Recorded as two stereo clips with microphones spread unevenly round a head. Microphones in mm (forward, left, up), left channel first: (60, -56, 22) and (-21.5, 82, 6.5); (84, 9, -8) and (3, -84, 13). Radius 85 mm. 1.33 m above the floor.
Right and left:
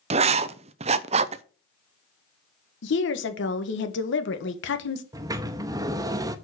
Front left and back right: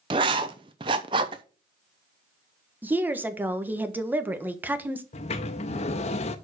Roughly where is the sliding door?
Ahead left.